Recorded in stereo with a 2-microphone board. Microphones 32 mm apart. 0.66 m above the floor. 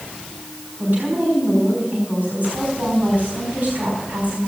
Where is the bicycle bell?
I don't hear a bicycle bell.